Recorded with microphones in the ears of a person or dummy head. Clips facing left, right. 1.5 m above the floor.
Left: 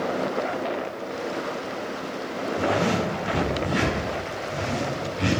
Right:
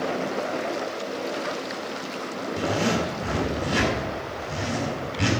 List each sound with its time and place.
2.6 s a zipper: 65° right (ahead or behind), 7 m